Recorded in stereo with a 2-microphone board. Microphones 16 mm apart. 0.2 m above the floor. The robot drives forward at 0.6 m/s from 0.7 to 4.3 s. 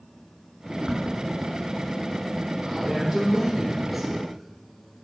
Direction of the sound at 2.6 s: 5° right (ahead or behind).